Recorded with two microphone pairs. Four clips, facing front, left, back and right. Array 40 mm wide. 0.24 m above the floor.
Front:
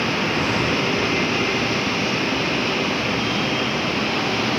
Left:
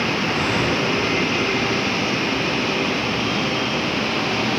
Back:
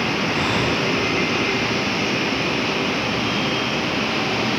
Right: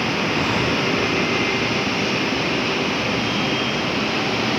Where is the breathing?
165° right, 0.8 m.